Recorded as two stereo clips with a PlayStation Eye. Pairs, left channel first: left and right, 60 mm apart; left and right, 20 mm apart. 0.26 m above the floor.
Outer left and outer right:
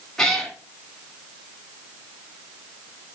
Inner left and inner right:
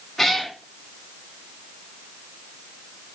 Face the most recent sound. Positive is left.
turn(degrees=10)  # may be behind; listen again after turning